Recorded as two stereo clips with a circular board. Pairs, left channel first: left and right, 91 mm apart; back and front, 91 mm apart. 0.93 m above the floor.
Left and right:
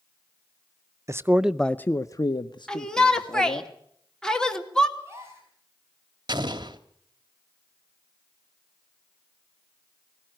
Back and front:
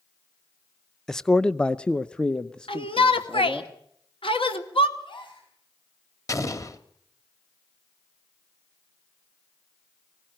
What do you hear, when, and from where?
1.1 s a man speaking: 100° right, 0.6 m; by 3.7 s 95° left, 1.6 m
2.7 s a shout: 170° left, 2.5 m
5.0 s a gasp: 150° right, 7.5 m
6.3 s an explosion: 125° right, 1.6 m